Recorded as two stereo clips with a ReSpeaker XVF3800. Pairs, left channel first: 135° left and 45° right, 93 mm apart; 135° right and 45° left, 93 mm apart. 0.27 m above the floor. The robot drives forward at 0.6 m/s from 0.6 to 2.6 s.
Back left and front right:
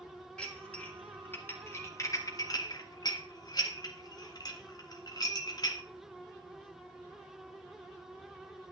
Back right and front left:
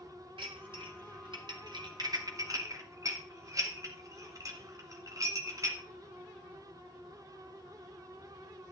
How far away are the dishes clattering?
About 1.9 m.